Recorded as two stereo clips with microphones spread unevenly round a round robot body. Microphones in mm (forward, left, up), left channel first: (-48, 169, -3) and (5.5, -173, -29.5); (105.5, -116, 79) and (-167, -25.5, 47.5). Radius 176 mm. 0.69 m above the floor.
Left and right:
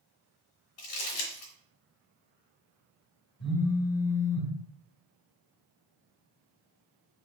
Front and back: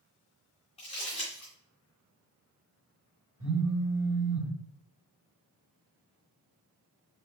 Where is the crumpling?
50° left, 1.7 m.